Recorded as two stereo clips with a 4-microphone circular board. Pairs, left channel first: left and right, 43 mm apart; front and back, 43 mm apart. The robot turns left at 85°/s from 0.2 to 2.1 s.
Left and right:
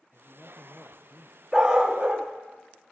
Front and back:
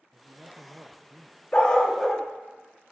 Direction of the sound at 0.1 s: 175° right.